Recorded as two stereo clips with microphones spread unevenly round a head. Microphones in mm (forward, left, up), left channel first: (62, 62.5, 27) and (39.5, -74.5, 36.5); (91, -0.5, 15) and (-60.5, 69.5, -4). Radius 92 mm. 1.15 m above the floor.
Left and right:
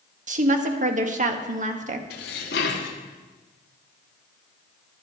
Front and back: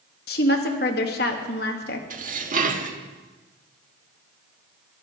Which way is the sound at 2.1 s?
115° left.